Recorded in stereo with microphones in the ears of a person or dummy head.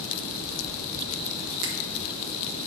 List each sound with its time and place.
1.6 s a finger snap: 65° right (ahead or behind), 1.2 m